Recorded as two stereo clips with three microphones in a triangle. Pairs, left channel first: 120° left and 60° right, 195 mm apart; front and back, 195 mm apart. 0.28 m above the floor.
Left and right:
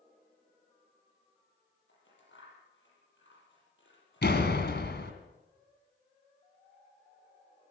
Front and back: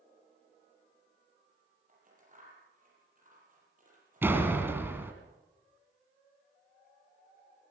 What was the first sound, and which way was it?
Scissors, 135° left.